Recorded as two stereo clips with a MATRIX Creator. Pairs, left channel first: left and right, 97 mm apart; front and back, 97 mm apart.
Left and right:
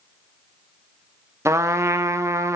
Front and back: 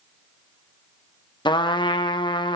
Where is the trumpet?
30° right, 0.9 m.